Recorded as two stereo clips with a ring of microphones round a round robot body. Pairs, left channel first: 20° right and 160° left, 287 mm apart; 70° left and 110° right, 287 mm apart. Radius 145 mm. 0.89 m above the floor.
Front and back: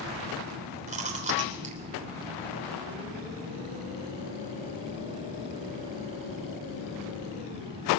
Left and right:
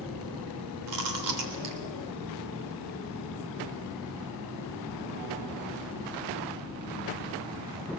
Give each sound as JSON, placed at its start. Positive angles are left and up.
{"t": 0.9, "sound": "chewing", "azimuth_deg": -135, "distance_m": 3.0}